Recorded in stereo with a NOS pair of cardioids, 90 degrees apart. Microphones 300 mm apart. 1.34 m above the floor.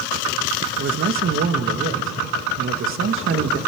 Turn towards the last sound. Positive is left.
turn(degrees=-40)